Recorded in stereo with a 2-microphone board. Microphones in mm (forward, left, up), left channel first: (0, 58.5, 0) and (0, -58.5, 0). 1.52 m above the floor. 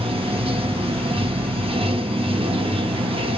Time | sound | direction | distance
0.0 | running water | 50° right (ahead or behind) | 1.3 m